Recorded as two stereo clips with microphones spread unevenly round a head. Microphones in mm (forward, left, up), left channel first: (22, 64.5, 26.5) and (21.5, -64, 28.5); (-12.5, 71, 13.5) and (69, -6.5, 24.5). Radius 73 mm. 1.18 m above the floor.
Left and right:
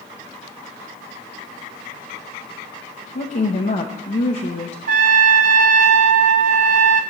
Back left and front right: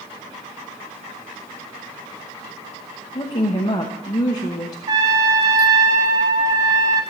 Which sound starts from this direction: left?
A woman speaking, at 3.1 s.